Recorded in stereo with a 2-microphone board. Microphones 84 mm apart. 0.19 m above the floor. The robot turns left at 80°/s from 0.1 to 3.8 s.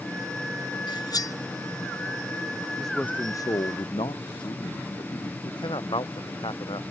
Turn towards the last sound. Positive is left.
turn(degrees=75)  # may be behind; listen again after turning